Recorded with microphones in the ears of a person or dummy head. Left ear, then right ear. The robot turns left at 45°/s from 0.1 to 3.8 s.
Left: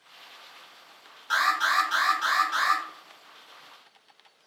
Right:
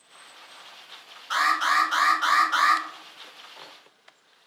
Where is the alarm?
55° left, 1.5 m; by 2.8 s 15° right, 1.5 m.